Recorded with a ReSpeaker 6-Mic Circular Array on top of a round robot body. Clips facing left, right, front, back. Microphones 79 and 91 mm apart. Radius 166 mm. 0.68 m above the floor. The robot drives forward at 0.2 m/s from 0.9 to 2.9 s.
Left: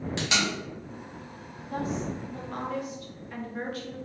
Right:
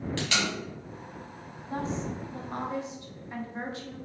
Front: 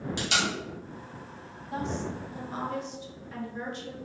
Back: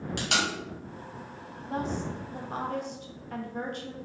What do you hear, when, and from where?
0.2 s tape being pulled: 160° left, 1.6 m
1.7 s a woman speaking: 140° right, 0.7 m; by 4.0 s 155° right, 0.9 m